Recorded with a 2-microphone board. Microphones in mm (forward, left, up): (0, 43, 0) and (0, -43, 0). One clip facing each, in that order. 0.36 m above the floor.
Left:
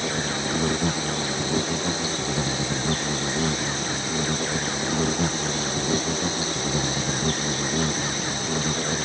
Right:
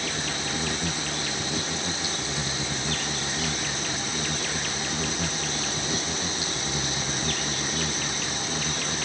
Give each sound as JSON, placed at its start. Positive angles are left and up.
{"t": 0.0, "sound": "an insect", "side_deg": 35}